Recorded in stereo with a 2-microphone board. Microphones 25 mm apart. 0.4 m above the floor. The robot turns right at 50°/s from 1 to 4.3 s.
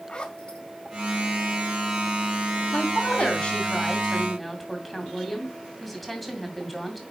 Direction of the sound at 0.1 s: 35° left (ahead or behind).